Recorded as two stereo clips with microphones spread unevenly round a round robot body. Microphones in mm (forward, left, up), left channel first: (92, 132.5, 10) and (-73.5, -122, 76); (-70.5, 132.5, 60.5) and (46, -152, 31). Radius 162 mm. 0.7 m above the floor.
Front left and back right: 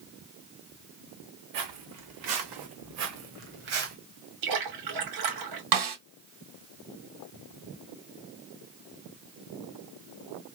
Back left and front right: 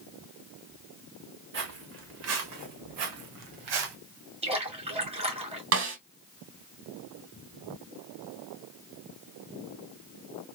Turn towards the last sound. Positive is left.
turn(degrees=-110)